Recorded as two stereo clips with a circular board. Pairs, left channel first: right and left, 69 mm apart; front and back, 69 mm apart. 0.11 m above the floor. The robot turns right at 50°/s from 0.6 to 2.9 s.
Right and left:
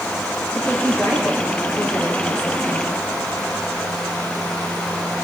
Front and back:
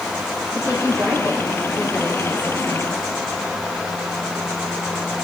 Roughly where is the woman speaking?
Behind.